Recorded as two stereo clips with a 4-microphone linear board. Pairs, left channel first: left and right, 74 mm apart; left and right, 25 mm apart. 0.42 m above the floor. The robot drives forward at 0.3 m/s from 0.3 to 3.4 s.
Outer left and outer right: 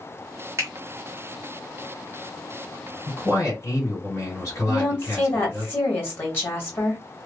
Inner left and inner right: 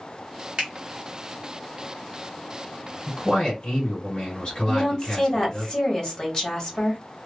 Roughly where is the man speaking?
Left.